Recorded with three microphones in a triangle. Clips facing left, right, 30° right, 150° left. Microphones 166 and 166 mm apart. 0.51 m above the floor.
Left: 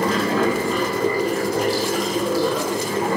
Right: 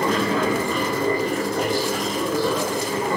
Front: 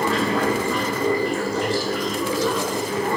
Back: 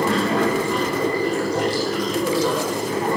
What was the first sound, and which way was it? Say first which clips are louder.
Running water: left 2 dB, back 2 dB; 145° left.